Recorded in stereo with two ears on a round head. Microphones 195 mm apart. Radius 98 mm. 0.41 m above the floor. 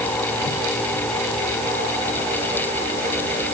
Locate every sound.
Only background noise.